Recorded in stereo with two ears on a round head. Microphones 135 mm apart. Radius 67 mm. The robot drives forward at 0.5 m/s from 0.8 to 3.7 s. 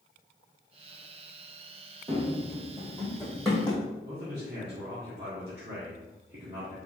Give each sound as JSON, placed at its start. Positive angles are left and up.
{"t": 2.1, "sound": "running footsteps", "side_deg": -35, "distance_m": 1.3}
{"t": 4.0, "sound": "a man speaking", "side_deg": -35, "distance_m": 1.7}